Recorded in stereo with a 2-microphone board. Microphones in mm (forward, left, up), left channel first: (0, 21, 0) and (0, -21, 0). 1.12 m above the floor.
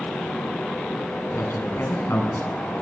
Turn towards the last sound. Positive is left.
turn(degrees=70)  # may be behind; listen again after turning